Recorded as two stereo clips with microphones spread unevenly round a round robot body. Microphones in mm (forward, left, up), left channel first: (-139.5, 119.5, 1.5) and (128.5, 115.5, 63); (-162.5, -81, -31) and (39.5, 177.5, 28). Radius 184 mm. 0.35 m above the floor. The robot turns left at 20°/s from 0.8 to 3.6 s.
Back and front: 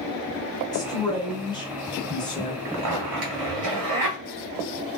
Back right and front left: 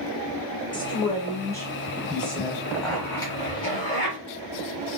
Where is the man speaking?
165° right, 1.0 m; by 2.5 s 160° left, 1.0 m.